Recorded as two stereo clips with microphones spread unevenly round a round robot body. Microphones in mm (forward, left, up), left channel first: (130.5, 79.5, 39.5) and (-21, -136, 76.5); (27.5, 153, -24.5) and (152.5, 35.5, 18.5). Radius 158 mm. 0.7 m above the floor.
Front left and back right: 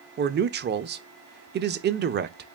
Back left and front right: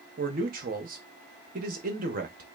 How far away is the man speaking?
About 0.6 m.